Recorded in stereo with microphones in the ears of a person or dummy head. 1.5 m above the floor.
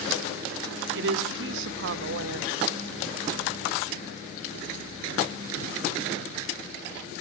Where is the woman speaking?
65° right (ahead or behind), 0.8 m.